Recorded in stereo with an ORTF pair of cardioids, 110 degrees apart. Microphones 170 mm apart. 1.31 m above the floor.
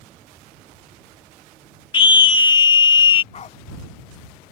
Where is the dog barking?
40° left.